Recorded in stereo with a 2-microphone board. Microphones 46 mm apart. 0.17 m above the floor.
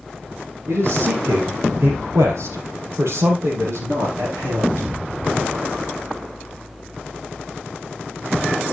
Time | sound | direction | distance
0.7 | a man speaking | 65° right (ahead or behind) | 4 m